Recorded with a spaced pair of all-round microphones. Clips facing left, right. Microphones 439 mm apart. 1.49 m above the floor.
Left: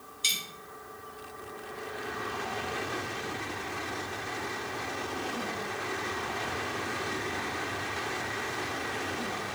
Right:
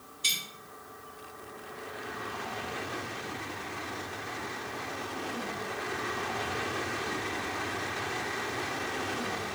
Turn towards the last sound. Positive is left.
turn(degrees=5)  # may be behind; listen again after turning